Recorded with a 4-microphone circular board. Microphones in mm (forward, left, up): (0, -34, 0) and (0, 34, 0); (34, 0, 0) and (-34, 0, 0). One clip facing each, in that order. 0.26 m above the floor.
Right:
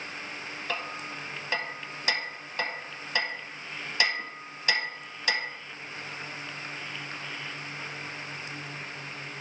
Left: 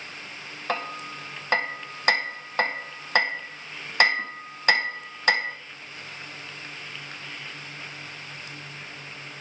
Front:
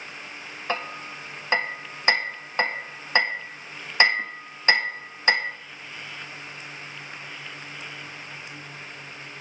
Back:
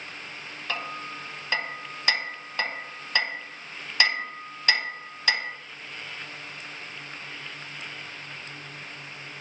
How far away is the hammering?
About 0.6 m.